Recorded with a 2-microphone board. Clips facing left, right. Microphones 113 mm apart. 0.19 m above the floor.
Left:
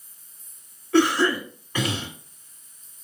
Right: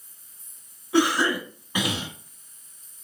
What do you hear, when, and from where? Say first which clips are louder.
0.9 s a cough: left 2 dB; 15° right (ahead or behind), 2 m